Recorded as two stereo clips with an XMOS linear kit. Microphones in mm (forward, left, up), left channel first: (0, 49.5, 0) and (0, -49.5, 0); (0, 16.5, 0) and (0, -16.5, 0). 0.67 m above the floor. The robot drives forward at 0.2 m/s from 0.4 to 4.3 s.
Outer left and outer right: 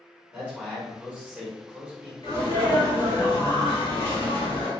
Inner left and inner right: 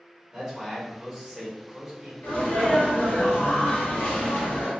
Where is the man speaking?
15° right (ahead or behind), 1.8 m.